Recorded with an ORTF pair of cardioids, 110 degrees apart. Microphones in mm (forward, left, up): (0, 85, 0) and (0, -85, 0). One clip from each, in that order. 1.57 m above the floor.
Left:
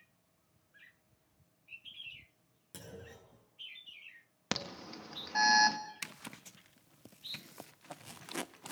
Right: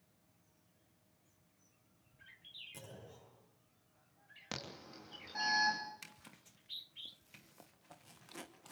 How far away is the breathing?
No breathing in this recording.